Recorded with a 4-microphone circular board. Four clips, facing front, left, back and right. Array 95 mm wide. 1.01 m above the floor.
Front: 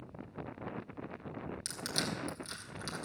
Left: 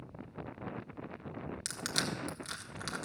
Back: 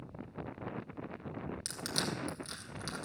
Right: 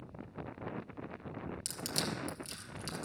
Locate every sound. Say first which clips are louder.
1.6 s crushing: left 2 dB, even; 90° left, 1.6 m